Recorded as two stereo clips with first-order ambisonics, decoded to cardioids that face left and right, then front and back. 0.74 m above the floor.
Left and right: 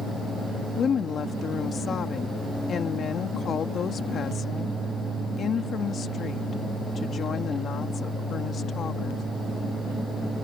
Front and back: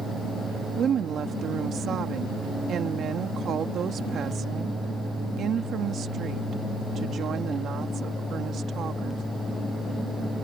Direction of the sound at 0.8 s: 140° left.